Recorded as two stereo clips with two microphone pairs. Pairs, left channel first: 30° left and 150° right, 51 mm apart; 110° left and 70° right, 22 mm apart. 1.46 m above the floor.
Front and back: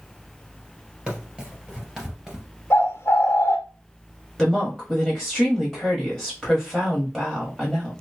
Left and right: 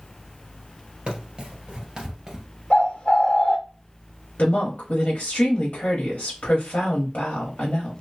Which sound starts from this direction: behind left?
A woman speaking, at 4.4 s.